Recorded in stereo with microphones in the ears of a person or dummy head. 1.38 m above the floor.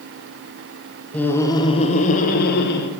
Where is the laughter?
10° left (ahead or behind), 0.7 m; by 2.9 s 65° left (ahead or behind), 1.1 m.